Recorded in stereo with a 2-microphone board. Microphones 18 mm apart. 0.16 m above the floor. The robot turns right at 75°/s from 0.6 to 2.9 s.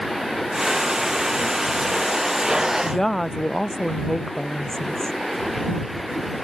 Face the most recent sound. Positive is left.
turn(degrees=25)  # may be behind; listen again after turning